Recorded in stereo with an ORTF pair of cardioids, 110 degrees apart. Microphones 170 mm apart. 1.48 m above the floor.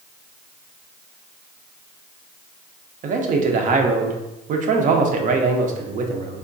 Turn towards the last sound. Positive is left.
turn(degrees=-50)